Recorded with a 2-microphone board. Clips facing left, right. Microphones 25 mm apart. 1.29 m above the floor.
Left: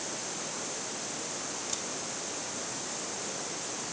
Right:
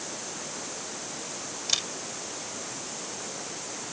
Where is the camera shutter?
65° right (ahead or behind).